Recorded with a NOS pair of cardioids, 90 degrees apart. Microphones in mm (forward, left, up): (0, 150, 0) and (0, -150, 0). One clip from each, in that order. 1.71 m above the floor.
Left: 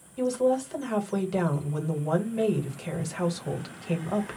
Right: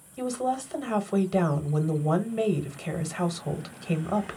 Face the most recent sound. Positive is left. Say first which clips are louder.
# left 4 dB
turn(degrees=-10)